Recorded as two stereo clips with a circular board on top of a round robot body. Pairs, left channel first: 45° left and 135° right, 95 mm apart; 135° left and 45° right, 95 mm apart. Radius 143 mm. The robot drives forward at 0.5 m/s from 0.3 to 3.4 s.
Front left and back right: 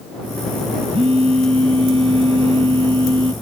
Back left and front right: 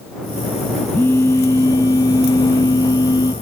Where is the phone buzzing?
155° right; by 3.3 s 170° right.